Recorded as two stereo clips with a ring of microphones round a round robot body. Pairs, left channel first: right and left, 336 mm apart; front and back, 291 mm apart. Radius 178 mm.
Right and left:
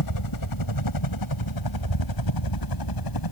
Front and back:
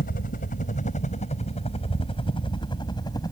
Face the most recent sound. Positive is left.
turn(degrees=-80)